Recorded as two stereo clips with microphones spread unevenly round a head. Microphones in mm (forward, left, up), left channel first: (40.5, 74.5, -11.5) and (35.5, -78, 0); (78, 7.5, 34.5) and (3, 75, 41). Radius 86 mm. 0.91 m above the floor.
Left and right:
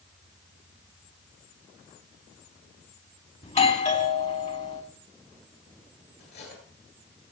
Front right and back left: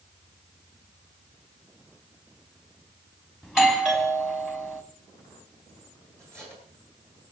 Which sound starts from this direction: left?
Cutlery clinking, at 6.2 s.